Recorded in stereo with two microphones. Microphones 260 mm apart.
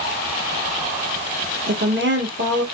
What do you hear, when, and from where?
1.7 s a woman speaking: 45° right (ahead or behind), 1.9 m